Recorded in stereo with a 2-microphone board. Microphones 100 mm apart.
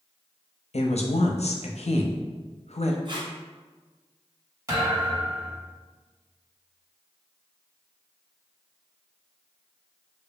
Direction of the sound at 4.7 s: 30° right (ahead or behind).